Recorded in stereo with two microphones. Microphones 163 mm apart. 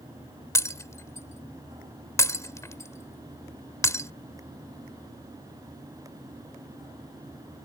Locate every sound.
0.6 s breaking glass: 20° left (ahead or behind)